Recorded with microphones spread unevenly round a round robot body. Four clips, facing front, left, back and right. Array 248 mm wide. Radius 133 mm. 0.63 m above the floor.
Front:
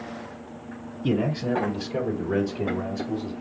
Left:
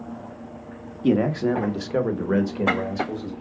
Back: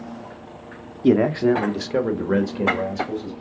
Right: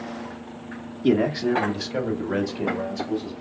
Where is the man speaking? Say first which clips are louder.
Even, back 8 dB; 155° right, 1.1 m; by 3.3 s 160° left, 3 m.